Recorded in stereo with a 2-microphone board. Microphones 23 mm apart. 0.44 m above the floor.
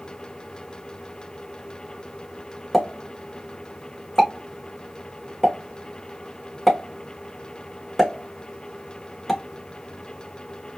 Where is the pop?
Centre (ahead or behind), 1.7 m.